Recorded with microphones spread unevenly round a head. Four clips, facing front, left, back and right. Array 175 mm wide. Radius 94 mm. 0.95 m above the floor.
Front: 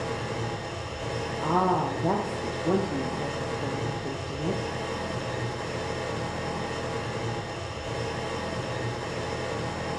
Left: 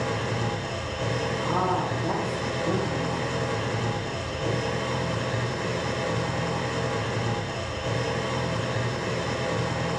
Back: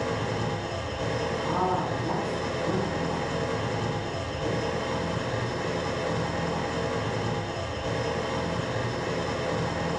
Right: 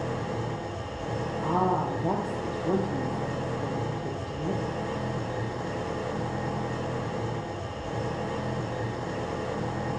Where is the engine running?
110° left, 0.8 m.